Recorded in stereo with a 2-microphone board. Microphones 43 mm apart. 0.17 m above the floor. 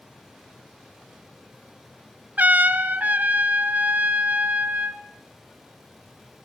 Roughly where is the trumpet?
Right.